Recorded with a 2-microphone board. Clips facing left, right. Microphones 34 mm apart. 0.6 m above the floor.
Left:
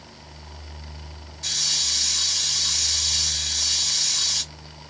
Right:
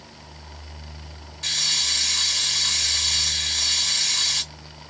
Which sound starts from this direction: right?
A hiss, at 1.4 s.